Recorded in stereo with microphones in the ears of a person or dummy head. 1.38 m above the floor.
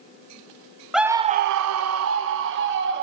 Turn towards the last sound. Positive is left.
turn(degrees=-60)  # may be behind; listen again after turning